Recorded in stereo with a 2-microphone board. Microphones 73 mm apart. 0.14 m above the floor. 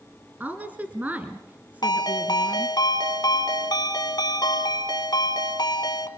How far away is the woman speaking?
About 1.9 m.